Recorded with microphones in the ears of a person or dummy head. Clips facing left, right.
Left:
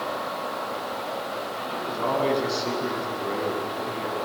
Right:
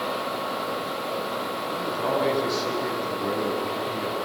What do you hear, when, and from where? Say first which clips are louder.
1.7 s a man speaking: even; 15° right (ahead or behind), 7 m